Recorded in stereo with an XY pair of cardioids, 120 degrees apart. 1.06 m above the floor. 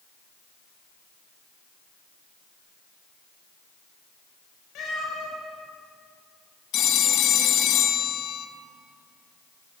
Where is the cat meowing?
65° left, 3 m.